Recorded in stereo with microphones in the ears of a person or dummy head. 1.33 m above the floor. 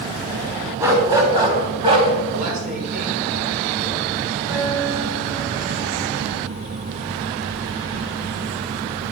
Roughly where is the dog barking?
Centre.